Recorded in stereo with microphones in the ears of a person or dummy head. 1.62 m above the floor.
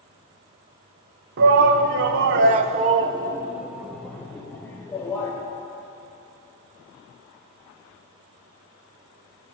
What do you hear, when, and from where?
1.4 s a shout: 55° right (ahead or behind), 1.0 m; by 5.3 s 20° left (ahead or behind), 1.7 m